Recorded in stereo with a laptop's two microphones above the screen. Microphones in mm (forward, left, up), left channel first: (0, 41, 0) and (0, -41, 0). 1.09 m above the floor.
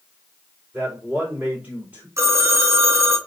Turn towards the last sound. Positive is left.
turn(degrees=-35)  # may be behind; listen again after turning